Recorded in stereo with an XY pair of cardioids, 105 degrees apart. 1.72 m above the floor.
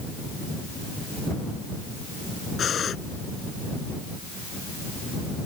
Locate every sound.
2.6 s breathing: 50° left